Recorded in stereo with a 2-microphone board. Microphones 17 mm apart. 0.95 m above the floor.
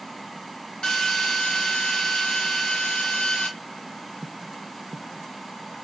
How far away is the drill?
About 0.9 m.